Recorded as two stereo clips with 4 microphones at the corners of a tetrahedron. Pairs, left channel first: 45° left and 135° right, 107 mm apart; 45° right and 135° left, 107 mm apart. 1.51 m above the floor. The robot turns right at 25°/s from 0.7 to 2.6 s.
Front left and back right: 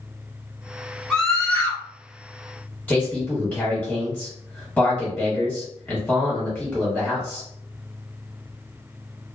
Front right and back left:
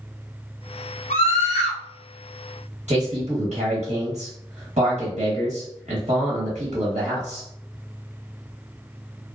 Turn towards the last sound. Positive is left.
turn(degrees=125)